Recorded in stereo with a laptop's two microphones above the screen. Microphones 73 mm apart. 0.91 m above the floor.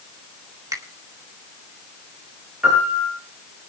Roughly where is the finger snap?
Right.